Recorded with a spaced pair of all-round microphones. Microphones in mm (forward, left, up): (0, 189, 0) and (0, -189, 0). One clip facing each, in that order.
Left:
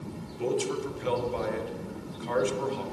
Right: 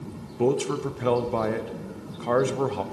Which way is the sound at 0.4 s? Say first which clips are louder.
Right 5 dB; 70° right (ahead or behind).